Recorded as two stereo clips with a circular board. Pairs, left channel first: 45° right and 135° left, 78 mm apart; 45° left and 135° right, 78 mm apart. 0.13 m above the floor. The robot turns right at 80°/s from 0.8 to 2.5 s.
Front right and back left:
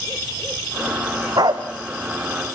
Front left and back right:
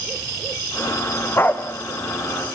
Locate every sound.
1.4 s a dog barking: 100° left, 2.5 m; by 1.7 s 130° left, 2.5 m